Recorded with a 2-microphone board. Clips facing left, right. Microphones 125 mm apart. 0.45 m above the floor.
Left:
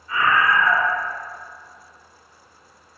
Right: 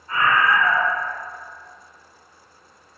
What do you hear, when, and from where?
0.1 s a scream: 45° right (ahead or behind), 1.0 m